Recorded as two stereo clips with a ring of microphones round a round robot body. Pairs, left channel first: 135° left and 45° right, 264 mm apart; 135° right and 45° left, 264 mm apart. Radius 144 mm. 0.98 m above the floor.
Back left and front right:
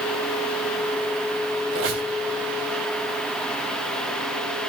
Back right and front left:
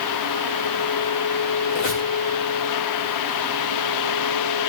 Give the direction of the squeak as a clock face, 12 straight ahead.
3 o'clock.